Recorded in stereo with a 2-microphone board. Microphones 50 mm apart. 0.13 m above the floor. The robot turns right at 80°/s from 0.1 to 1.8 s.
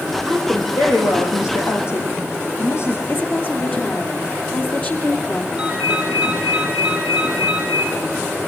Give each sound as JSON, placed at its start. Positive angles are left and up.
{"t": 0.3, "sound": "a woman speaking", "azimuth_deg": 0, "distance_m": 5.0}
{"t": 3.1, "sound": "a woman speaking", "side_deg": 40, "distance_m": 2.5}
{"t": 5.6, "sound": "a ringtone", "side_deg": -25, "distance_m": 3.0}